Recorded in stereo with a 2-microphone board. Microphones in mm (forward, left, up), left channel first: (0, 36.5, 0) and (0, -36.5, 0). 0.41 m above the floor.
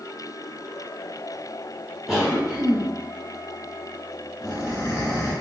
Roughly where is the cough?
Centre.